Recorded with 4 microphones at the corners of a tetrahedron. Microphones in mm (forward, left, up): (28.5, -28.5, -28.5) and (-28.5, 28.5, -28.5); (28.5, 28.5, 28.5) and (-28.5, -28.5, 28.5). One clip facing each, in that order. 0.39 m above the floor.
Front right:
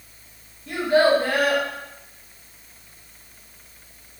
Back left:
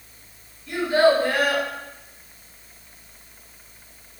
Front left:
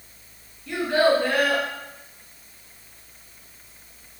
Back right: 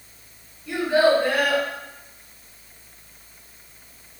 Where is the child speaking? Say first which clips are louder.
Even, back right 2 dB; 60° right, 1.1 m.